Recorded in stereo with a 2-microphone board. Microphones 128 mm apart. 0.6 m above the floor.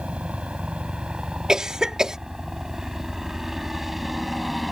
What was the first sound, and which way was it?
A helicopter, 10° right (ahead or behind).